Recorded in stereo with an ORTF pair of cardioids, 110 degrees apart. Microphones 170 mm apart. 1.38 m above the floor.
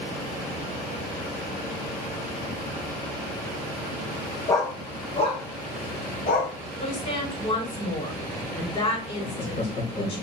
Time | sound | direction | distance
4.5 | a dog barking | 20° left | 3 m
6.8 | a woman speaking | 35° left | 5.5 m
9.2 | laughter | 40° left | 3.5 m